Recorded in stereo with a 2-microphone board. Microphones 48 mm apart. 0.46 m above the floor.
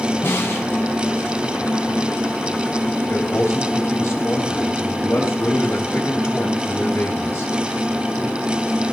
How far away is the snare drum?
About 2.5 m.